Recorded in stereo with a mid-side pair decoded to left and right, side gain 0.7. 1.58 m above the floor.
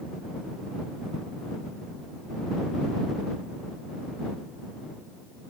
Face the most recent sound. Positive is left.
No sound to turn to.